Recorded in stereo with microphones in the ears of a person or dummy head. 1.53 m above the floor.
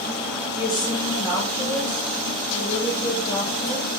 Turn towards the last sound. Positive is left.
turn(degrees=30)  # may be behind; listen again after turning